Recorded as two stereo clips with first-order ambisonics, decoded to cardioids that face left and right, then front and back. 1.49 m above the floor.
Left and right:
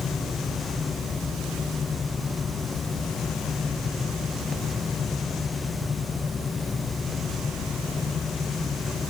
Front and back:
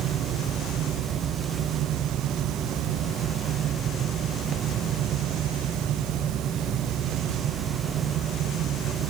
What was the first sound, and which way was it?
Only background noise.